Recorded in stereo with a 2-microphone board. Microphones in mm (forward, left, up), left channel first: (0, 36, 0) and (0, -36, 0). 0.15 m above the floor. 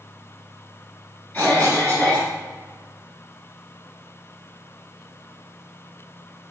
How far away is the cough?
About 1.9 m.